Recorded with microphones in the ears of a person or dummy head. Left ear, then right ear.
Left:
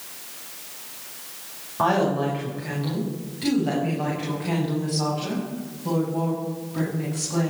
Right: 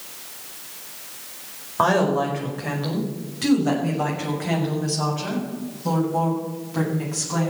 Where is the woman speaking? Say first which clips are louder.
Right 2 dB; 40° right (ahead or behind), 5 m.